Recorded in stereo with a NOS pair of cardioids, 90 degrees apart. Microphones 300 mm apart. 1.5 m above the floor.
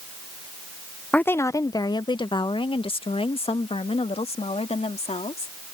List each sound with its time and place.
1.1 s a woman speaking: 5° left; by 5.5 s 20° left